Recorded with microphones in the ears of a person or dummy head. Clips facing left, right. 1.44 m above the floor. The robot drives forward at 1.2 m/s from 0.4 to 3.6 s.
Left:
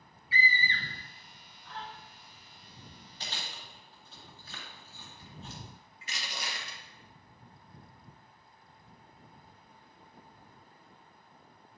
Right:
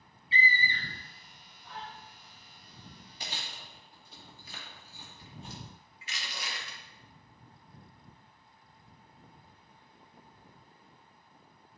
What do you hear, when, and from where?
0.3 s a scream: 20° right (ahead or behind), 0.5 m; by 1.9 s 5° right (ahead or behind), 2 m
3.2 s chewing: 10° right (ahead or behind), 2.5 m; by 5.6 s 15° right (ahead or behind), 2 m
6.0 s crushing: 35° left (ahead or behind), 1.5 m